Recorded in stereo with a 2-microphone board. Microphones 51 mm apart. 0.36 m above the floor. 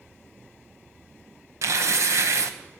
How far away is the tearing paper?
About 1.0 m.